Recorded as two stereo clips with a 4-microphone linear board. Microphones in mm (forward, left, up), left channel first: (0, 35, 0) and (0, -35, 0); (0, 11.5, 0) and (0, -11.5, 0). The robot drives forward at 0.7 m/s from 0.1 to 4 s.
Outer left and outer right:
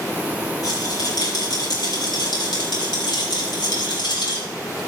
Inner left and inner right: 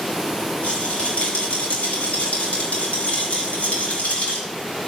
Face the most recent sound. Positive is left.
turn(degrees=85)